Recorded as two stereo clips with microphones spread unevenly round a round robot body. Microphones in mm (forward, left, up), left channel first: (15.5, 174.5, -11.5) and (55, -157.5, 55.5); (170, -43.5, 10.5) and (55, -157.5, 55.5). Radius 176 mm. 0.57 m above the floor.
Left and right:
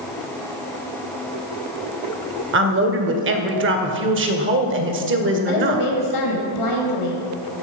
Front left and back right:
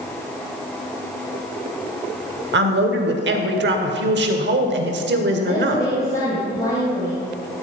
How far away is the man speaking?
About 2 m.